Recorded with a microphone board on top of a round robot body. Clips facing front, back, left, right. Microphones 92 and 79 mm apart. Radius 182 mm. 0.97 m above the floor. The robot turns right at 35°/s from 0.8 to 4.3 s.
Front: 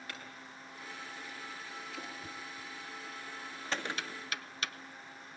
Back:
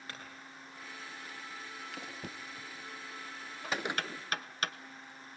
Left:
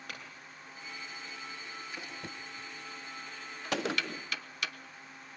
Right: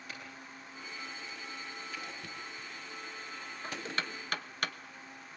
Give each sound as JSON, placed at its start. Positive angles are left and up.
{"t": 0.1, "sound": "a clink", "azimuth_deg": 125, "distance_m": 9.0}
{"t": 2.2, "sound": "knocking", "azimuth_deg": 155, "distance_m": 1.3}
{"t": 3.7, "sound": "a gunshot", "azimuth_deg": 100, "distance_m": 0.6}